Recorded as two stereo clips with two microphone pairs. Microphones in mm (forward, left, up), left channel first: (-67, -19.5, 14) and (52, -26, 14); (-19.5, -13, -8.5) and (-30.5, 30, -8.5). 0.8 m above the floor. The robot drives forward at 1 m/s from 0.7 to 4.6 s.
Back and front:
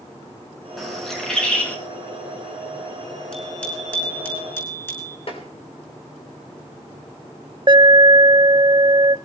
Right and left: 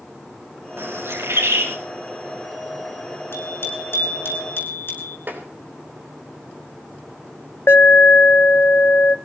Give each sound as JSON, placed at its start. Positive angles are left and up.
{"t": 0.8, "sound": "a bird", "azimuth_deg": 85, "distance_m": 4.5}
{"t": 3.3, "sound": "a bicycle bell", "azimuth_deg": -105, "distance_m": 6.0}
{"t": 5.3, "sound": "tapping", "azimuth_deg": 145, "distance_m": 3.5}
{"t": 7.7, "sound": "an alarm", "azimuth_deg": -55, "distance_m": 0.7}